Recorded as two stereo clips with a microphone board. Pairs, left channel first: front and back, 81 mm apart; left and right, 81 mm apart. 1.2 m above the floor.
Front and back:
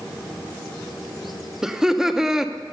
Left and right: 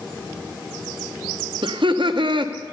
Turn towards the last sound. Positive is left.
turn(degrees=-95)